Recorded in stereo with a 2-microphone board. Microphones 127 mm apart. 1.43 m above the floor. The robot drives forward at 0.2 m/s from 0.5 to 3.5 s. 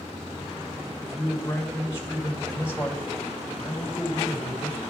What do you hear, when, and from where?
1.0 s a man speaking: 20° left (ahead or behind), 3.5 m